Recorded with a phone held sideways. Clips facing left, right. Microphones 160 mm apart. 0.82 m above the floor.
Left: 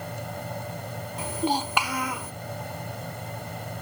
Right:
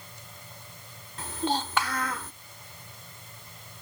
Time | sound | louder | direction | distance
0.0 | a fan | left 16 dB | 75° left (ahead or behind) | ?
1.2 | a child speaking | left 3 dB | 15° left (ahead or behind) | ?